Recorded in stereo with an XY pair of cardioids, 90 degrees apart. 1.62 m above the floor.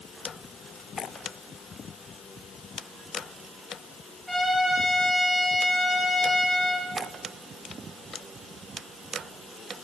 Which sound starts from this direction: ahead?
A trumpet, at 4.3 s.